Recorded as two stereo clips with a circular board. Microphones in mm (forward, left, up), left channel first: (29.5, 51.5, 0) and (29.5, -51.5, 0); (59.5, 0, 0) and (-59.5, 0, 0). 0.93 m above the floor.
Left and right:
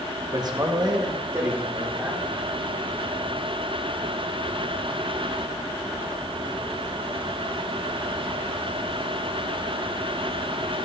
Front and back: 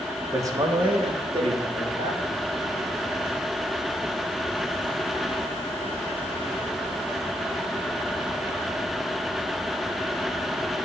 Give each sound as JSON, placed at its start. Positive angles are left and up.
{"t": 0.3, "sound": "a man speaking", "azimuth_deg": -120, "distance_m": 0.8}